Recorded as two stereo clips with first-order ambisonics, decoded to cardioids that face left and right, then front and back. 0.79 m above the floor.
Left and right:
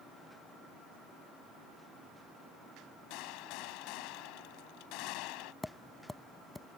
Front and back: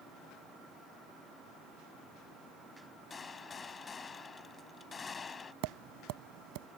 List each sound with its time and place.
3.1 s a gunshot: 70° left
5.6 s tapping: 175° left